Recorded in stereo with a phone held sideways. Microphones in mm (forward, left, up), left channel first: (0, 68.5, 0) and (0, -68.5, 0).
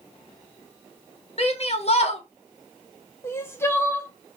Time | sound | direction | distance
1.4 | a shout | 50° left (ahead or behind) | 1.2 m
3.2 | crying | 20° left (ahead or behind) | 0.8 m